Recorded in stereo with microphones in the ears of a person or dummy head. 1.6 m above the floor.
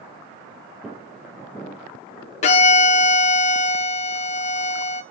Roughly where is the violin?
Left.